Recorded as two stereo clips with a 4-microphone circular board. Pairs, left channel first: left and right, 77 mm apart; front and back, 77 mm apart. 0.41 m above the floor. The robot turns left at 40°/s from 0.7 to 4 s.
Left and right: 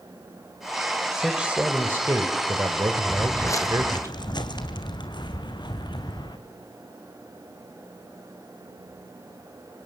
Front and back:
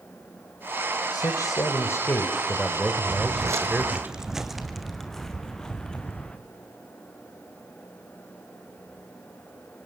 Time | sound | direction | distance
1.1 | a man speaking | 10° right | 1.9 m
3.1 | footsteps | 165° left | 0.8 m